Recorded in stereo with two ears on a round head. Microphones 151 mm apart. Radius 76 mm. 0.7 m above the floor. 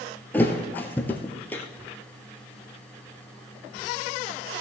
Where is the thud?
10° left (ahead or behind), 1.3 m.